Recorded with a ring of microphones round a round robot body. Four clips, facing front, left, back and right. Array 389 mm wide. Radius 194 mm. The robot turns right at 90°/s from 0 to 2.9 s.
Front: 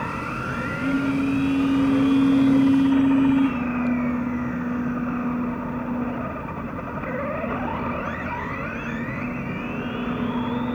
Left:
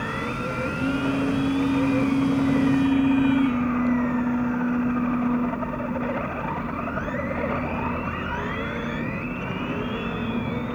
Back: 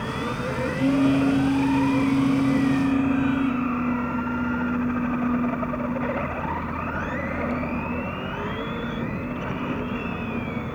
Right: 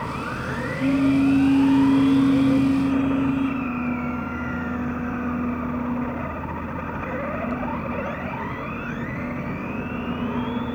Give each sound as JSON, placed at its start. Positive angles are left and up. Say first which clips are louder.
{"t": 0.8, "sound": "a phone buzzing", "louder": "right 7 dB, back 3 dB", "azimuth_deg": 180, "distance_m": 5.5}